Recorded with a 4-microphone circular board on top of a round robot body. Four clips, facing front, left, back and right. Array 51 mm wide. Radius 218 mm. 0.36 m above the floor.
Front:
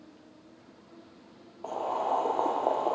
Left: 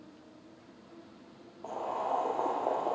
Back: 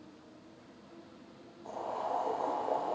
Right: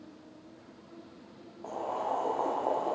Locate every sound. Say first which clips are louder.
1.6 s boiling: even, front 7 dB; 5° left, 2.5 m